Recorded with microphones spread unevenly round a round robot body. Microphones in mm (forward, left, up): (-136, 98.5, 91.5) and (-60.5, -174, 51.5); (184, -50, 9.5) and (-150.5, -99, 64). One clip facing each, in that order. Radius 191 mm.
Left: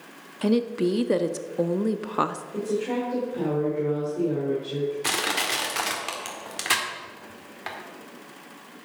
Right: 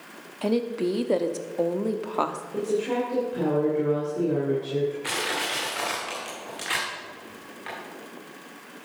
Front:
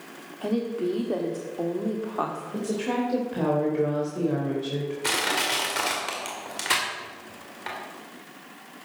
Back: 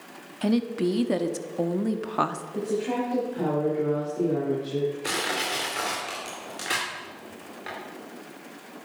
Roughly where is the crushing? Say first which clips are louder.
Left 1 dB, front 1 dB; left.